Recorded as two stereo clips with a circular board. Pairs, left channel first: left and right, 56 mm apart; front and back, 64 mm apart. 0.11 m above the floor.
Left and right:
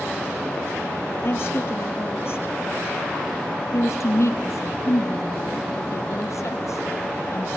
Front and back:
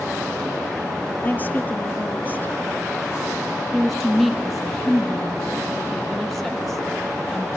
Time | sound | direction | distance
1.2 | a woman speaking | 60° left | 3 m
3.7 | a woman speaking | 90° left | 3 m